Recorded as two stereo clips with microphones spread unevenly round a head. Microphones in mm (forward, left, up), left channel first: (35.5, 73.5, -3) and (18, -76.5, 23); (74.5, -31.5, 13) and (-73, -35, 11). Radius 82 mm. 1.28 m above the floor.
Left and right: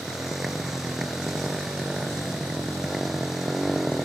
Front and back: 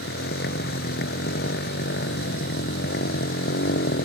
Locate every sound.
0.0 s a motorcycle: 10° right